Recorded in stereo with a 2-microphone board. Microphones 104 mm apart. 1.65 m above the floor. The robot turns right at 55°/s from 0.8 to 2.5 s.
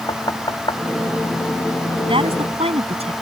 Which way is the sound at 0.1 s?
45° left (ahead or behind).